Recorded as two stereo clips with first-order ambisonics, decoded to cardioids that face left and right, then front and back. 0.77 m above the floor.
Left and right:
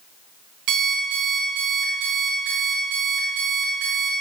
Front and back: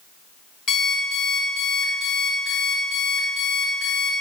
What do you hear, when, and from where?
0.7 s an alarm clock: 60° right, 2 m